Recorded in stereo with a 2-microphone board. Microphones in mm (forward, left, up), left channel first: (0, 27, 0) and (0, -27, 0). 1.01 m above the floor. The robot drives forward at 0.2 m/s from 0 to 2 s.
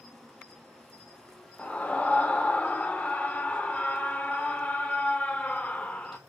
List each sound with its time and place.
0.0 s an insect: 5° right (ahead or behind), 1.8 m
1.6 s a scream: 25° left (ahead or behind), 0.6 m